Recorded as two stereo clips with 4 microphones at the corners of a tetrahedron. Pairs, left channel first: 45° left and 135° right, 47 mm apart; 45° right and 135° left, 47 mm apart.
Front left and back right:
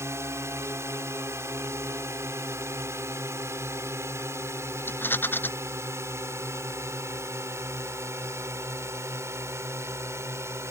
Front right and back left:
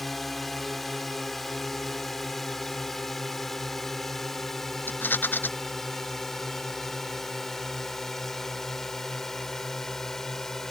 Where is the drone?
130° right; by 10.7 s 125° right.